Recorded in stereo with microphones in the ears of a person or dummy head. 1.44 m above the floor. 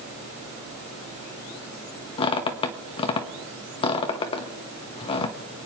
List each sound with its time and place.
2.2 s a squeak: 30° left (ahead or behind), 1.0 m